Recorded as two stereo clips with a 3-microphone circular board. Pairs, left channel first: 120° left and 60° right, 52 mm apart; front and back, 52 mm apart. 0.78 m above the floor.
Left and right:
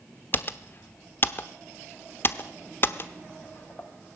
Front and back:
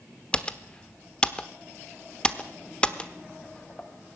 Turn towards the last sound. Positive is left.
turn(degrees=70)